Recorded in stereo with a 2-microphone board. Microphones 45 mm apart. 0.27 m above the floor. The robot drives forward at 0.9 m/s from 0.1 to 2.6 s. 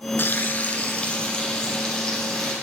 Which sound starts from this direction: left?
Frying, at 0.2 s.